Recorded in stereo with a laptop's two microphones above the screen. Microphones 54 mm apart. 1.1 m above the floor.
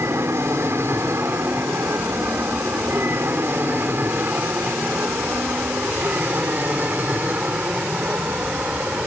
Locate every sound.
0.0 s an aircraft: 55° right (ahead or behind); by 9.1 s 25° right (ahead or behind)